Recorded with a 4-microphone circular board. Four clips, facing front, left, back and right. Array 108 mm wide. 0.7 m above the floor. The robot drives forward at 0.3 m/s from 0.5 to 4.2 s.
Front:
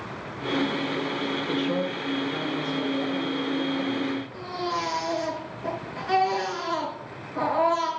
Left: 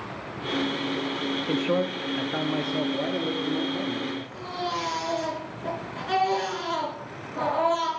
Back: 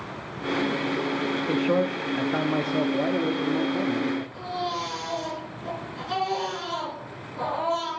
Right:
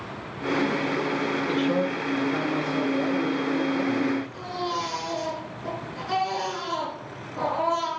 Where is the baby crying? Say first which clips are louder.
Right 1 dB, even; 20° left, 4.5 m.